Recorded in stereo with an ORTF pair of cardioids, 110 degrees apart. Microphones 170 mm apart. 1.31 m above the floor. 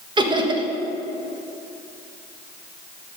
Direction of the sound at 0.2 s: 25° right.